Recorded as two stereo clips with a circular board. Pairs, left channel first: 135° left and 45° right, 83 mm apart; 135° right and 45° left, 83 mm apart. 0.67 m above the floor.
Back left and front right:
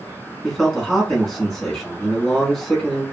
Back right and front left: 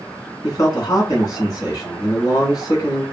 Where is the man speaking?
145° right, 1.3 m.